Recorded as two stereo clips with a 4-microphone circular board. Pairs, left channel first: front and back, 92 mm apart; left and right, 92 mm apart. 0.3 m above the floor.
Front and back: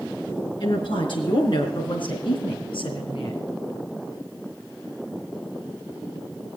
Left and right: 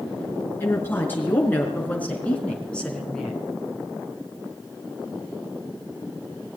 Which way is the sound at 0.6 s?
25° left.